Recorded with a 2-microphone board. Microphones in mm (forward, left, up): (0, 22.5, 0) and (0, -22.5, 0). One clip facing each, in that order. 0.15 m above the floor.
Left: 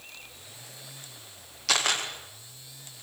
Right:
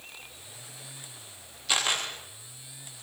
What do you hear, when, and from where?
1.7 s a camera shutter: 80° left, 7.5 m